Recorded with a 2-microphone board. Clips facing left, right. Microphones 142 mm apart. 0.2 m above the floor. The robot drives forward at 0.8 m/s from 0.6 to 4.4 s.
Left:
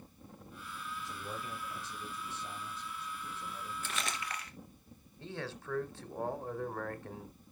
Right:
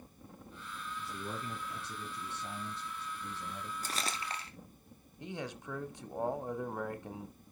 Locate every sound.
1.0 s a man speaking: 50° right (ahead or behind), 4.5 m; by 3.7 s 70° right (ahead or behind), 3.5 m
3.8 s crumpling: 40° right (ahead or behind), 1.4 m; by 4.5 s 30° right (ahead or behind), 1.7 m
5.2 s a man speaking: 15° right (ahead or behind), 1.1 m